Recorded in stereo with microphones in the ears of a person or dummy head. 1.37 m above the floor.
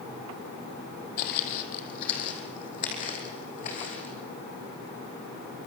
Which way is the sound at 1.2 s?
50° left (ahead or behind).